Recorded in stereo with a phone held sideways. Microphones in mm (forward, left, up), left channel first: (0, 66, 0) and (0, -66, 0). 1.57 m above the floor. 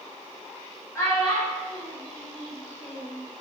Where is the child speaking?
20° left (ahead or behind), 1.4 m; by 3.2 s 60° left (ahead or behind), 3 m.